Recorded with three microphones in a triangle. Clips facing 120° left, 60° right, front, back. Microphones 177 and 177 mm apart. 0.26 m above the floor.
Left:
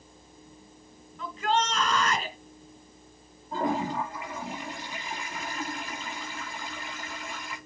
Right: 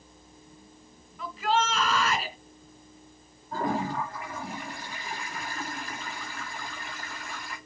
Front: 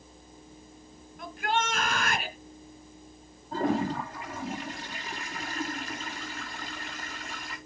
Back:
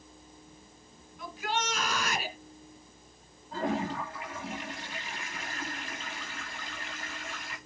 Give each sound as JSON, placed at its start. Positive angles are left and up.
{"t": 1.2, "sound": "a shout", "azimuth_deg": 25, "distance_m": 2.5}
{"t": 3.5, "sound": "a toilet flushing", "azimuth_deg": 50, "distance_m": 5.5}